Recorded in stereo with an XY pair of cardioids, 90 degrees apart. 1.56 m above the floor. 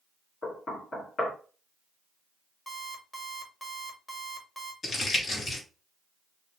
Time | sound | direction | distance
0.4 | knocking | 45° left | 3 m
2.7 | an alarm clock | 20° left | 2.0 m
4.8 | crumpling | 50° left | 3 m